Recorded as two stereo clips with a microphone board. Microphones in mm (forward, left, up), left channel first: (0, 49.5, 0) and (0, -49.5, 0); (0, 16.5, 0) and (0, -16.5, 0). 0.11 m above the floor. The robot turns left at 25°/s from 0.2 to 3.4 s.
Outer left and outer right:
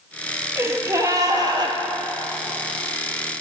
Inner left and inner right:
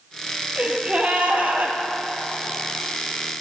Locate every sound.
0.6 s a gasp: 30° right, 0.9 m; by 1.8 s 60° right, 0.9 m